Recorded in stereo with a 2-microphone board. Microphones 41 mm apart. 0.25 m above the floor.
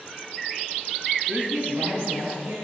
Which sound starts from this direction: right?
A man speaking, at 1.3 s.